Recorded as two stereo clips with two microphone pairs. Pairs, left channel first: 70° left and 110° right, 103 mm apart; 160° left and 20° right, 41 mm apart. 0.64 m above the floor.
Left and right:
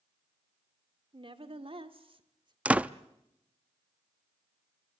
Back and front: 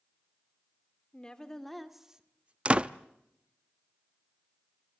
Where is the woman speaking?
135° right, 1.9 m; by 2.5 s 75° right, 1.7 m.